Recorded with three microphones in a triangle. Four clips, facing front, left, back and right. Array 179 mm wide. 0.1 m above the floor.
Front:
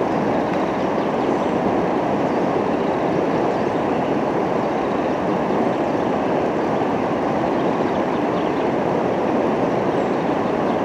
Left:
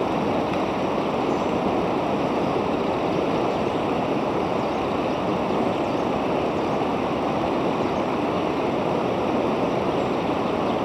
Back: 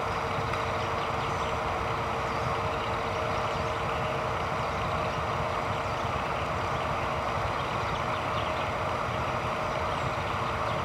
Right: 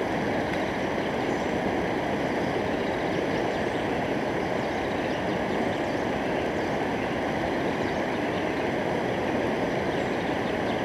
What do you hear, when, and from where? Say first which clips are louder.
0.0 s running water: left 4 dB, front 12 dB; 15° left